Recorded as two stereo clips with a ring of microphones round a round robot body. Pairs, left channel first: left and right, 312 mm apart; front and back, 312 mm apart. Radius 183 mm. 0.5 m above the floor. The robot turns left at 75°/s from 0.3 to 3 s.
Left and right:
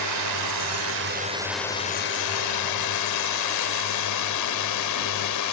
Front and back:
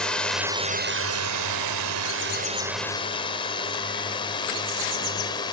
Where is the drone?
85° right; by 5.5 s 75° left.